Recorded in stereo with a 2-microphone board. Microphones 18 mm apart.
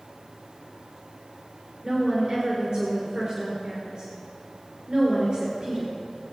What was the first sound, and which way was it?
A woman speaking, 60° right (ahead or behind).